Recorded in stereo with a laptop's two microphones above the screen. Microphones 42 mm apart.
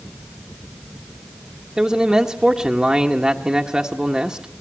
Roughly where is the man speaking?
Centre.